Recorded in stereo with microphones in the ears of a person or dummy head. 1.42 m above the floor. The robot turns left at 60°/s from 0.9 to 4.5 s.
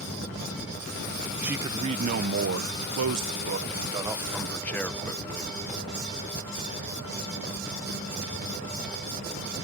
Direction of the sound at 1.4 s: 5° right.